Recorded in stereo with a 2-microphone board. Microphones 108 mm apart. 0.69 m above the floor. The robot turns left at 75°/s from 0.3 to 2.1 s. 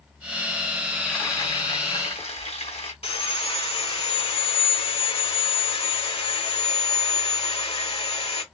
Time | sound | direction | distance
0.9 | frying | 175° right | 3.5 m
3.0 | sawing | 65° left (ahead or behind) | 3 m